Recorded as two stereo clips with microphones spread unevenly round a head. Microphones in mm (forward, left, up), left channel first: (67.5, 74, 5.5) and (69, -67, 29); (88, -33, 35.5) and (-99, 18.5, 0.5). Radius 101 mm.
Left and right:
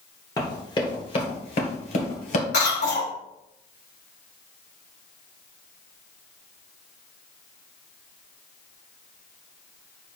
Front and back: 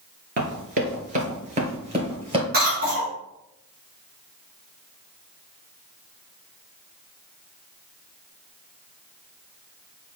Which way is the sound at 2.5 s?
120° left.